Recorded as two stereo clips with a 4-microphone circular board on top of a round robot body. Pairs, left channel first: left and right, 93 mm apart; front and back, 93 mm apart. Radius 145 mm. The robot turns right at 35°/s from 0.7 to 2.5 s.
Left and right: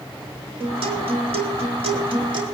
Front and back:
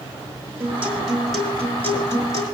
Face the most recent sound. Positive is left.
turn(degrees=-45)